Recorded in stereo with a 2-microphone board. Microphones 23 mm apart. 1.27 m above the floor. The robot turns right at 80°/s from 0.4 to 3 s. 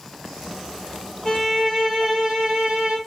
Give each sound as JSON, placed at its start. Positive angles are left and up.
{"t": 1.2, "sound": "a violin", "azimuth_deg": 135, "distance_m": 3.0}